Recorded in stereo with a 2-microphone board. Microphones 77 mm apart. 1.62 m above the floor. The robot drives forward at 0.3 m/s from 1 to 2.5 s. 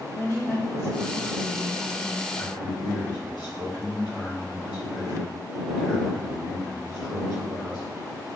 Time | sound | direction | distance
0.1 | a woman speaking | 35° left (ahead or behind) | 1.5 m
2.4 | a man speaking | 70° left (ahead or behind) | 1.2 m